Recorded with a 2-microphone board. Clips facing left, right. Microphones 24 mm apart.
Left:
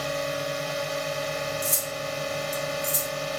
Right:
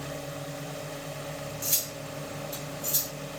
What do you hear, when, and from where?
0.0 s a drone: 65° left (ahead or behind)
1.6 s cutlery clinking: 30° right (ahead or behind)